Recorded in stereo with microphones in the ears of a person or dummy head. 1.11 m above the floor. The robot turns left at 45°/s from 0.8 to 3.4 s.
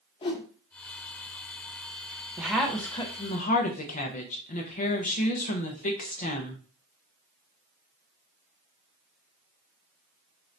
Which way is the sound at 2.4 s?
170° right.